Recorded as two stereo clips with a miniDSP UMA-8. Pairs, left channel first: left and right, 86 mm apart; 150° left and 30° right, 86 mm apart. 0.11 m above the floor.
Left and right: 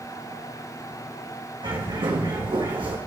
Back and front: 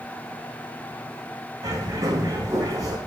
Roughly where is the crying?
I don't hear crying.